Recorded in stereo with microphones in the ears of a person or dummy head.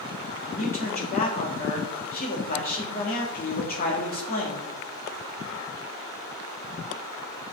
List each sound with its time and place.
0.5 s a man speaking: 45° left (ahead or behind), 2.5 m